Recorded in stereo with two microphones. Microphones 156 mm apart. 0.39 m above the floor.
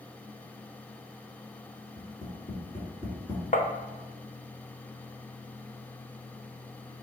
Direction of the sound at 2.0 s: 25° left (ahead or behind).